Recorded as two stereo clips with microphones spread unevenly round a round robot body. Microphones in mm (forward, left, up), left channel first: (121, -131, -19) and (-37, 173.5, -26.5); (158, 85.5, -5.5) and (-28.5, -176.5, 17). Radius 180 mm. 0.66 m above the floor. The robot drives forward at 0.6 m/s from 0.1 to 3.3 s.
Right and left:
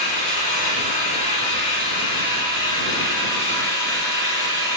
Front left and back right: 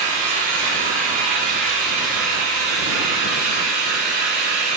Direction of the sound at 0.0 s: 130° right.